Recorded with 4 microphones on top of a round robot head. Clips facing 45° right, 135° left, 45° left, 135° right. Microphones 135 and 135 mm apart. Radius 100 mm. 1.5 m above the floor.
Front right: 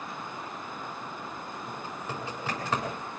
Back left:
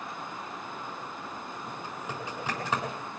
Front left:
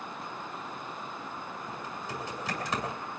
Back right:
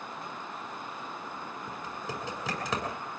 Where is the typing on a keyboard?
145° right, 7.5 m.